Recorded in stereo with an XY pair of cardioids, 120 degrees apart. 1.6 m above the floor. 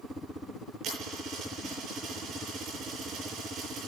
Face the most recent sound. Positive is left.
turn(degrees=-65)